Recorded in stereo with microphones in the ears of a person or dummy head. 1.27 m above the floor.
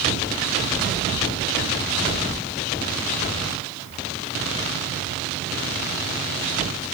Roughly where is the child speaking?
I don't hear a child speaking.